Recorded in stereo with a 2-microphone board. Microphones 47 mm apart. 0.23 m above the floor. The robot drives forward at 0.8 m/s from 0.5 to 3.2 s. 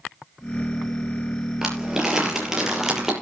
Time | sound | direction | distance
1.6 | crumpling | 10° right (ahead or behind) | 5 m